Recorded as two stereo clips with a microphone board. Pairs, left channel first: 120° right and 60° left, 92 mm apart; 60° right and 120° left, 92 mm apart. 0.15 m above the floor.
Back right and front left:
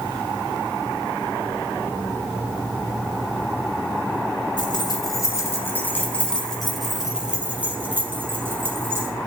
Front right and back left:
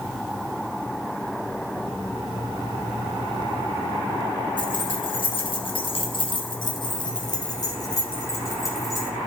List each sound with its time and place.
4.6 s keys jangling: 85° right, 2.5 m; by 9.1 s straight ahead, 4 m